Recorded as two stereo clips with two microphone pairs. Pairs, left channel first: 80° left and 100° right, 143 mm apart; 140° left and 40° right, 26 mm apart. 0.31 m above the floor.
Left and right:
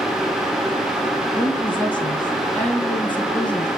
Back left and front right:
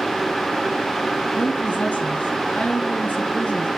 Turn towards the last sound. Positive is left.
turn(degrees=160)